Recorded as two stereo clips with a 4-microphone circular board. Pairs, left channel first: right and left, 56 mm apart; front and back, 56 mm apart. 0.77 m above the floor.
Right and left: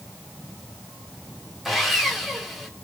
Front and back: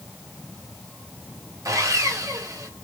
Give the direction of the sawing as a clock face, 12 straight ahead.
6 o'clock.